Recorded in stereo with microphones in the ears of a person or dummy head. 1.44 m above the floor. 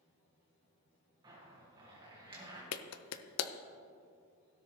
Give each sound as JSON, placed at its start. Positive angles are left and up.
{"t": 1.2, "sound": "a zipper", "side_deg": -20, "distance_m": 2.0}
{"t": 2.7, "sound": "a clap", "side_deg": 80, "distance_m": 0.6}